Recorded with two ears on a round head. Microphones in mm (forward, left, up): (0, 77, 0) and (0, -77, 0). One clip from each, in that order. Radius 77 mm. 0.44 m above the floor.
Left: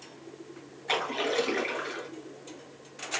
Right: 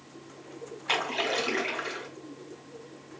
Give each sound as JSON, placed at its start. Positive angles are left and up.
{"t": 0.9, "sound": "a splash", "side_deg": -20, "distance_m": 1.9}